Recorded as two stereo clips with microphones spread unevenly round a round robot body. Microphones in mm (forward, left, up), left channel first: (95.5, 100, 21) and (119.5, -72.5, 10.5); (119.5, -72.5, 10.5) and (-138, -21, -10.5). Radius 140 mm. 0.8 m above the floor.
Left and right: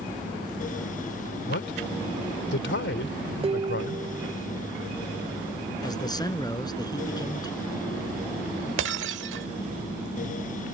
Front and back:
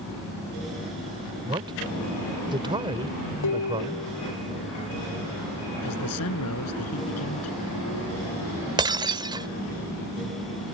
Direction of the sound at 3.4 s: 25° right.